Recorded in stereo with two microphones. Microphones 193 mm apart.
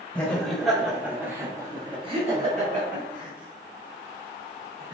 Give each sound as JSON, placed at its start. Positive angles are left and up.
{"t": 0.1, "sound": "laughter", "side_deg": 5, "distance_m": 1.4}